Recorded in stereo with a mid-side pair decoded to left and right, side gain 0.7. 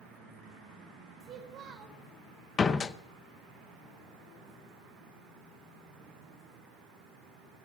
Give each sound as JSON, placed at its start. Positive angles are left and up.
{"t": 1.2, "sound": "a child speaking", "azimuth_deg": -40, "distance_m": 3.5}
{"t": 2.6, "sound": "a door slam", "azimuth_deg": 25, "distance_m": 0.8}